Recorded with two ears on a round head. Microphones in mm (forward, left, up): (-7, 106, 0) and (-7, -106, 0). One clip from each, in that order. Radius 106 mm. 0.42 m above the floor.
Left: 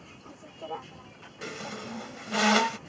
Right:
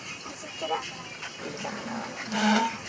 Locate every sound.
0.0 s a vehicle: 65° right (ahead or behind)
1.4 s a squeak: 35° left (ahead or behind)